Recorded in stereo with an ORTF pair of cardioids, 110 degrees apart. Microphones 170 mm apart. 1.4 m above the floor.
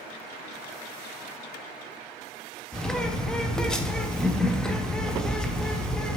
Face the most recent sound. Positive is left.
turn(degrees=5)